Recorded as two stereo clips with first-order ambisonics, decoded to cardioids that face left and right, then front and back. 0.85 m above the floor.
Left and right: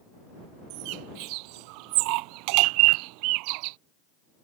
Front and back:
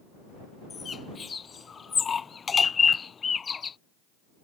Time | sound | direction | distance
0.7 | a bird | 70° right | ?